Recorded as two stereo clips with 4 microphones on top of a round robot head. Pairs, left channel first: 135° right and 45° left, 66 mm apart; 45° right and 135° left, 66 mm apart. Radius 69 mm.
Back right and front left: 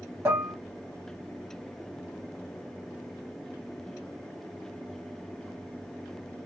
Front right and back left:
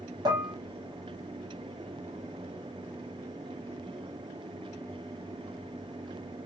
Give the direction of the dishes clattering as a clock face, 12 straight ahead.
8 o'clock.